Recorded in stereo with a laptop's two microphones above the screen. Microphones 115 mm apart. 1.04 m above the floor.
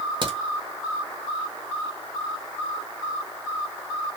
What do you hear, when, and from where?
0.2 s a crack: 40° right (ahead or behind), 1.6 m